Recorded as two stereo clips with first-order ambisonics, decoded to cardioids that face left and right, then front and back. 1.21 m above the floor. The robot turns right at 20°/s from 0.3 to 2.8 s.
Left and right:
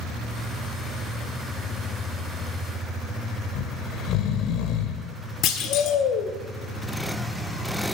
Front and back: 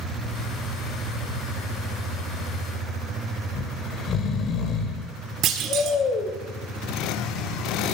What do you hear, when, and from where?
3.5 s snoring: 55° left, 1.8 m
5.4 s a clunk: 130° left, 1.7 m